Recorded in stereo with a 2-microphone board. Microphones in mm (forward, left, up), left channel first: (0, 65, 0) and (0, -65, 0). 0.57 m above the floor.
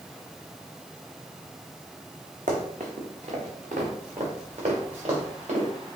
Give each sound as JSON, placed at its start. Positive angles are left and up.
{"t": 2.5, "sound": "running footsteps", "side_deg": -70, "distance_m": 1.7}